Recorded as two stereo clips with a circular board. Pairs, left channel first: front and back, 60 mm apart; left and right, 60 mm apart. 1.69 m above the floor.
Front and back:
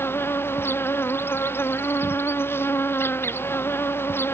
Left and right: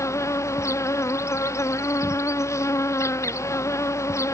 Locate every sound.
0.0 s an insect: 50° left